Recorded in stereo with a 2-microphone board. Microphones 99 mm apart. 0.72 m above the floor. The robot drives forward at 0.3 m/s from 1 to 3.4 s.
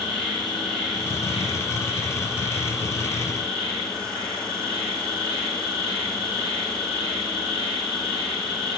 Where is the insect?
5° left (ahead or behind), 2.0 m.